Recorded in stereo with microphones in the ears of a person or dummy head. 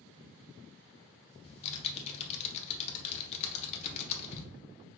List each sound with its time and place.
1.4 s typing on a keyboard: 35° left (ahead or behind), 0.8 m